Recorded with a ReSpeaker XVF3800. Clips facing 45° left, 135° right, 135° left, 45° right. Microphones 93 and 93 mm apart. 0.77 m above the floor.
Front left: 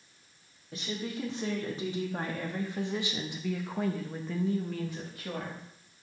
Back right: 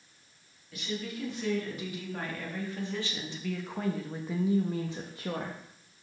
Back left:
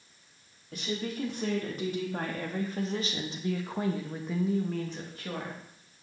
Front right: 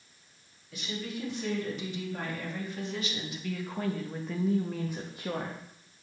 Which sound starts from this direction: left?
A woman speaking, at 0.7 s.